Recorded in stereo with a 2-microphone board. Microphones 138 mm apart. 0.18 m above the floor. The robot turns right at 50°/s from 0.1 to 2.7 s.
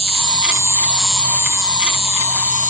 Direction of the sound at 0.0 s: 50° right.